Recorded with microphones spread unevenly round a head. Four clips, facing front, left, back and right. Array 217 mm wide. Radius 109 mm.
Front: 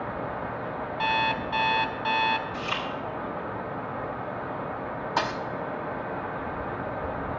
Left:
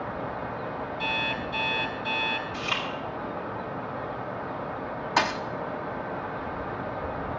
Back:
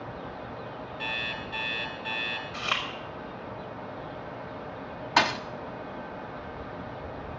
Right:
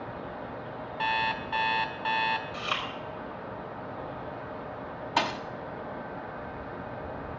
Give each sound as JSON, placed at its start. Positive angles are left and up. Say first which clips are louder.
{"t": 1.0, "sound": "an alarm clock", "louder": "right 5 dB, front 12 dB", "azimuth_deg": -40, "distance_m": 2.0}
{"t": 2.5, "sound": "chewing", "louder": "left 2 dB, front 2 dB", "azimuth_deg": -155, "distance_m": 5.5}
{"t": 5.2, "sound": "a thud", "louder": "left 3 dB, back 4 dB", "azimuth_deg": 160, "distance_m": 1.0}